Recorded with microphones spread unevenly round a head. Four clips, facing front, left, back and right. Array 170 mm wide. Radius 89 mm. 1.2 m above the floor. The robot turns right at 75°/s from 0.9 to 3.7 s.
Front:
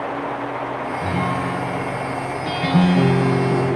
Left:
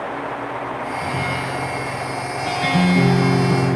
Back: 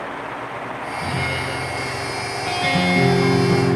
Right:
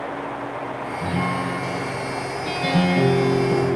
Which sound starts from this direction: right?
A guitar, at 1.0 s.